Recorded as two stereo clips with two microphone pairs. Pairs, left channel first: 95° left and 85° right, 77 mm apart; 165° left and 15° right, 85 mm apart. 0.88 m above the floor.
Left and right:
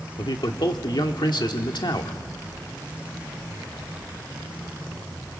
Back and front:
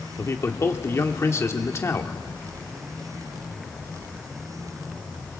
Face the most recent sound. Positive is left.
turn(degrees=110)